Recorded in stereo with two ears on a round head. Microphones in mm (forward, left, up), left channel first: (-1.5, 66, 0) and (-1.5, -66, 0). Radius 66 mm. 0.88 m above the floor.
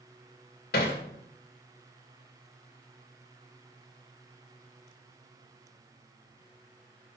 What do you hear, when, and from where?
0.7 s hammering: 75° left (ahead or behind), 2.0 m